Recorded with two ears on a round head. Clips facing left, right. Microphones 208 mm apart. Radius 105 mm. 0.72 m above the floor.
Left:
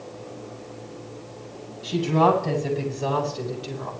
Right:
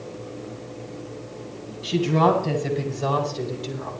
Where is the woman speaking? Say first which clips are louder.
Right 1 dB; centre (ahead or behind), 9.5 m; by 3.9 s 10° left (ahead or behind), 8.5 m.